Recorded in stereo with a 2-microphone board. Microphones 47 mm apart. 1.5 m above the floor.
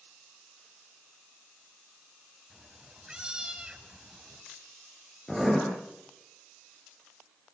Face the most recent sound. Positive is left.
turn(degrees=5)  # may be behind; listen again after turning